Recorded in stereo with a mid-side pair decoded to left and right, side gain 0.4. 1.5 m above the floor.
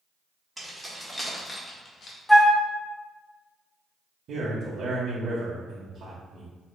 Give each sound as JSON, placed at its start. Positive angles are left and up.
{"t": 0.6, "sound": "keys jangling", "azimuth_deg": -10, "distance_m": 1.8}
{"t": 2.3, "sound": "a flute", "azimuth_deg": 10, "distance_m": 1.0}
{"t": 4.3, "sound": "a man speaking", "azimuth_deg": -65, "distance_m": 1.0}